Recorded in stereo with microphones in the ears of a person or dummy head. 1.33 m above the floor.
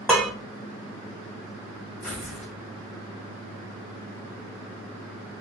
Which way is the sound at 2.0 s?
10° left (ahead or behind).